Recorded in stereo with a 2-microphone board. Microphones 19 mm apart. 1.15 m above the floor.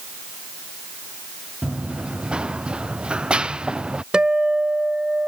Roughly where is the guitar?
Right.